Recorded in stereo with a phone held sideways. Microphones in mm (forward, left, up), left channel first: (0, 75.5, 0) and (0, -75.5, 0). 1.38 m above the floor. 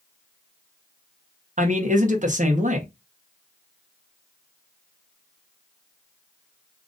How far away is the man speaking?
About 1.2 m.